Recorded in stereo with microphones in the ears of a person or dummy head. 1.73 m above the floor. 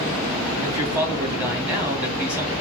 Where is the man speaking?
10° right (ahead or behind), 2.0 m.